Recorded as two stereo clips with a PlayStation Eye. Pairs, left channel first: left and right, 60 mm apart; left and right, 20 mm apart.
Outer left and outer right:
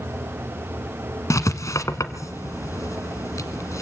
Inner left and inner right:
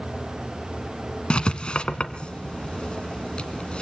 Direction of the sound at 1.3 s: 65° left (ahead or behind).